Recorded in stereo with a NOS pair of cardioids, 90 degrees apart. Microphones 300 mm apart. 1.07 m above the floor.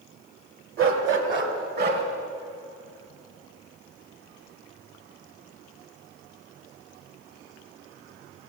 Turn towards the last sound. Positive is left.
turn(degrees=-35)